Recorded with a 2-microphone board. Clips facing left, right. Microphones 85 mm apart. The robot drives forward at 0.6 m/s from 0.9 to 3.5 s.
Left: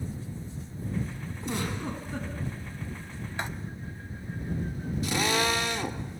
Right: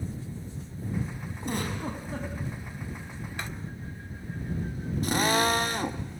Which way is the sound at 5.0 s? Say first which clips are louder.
Right 3 dB; 45° right (ahead or behind).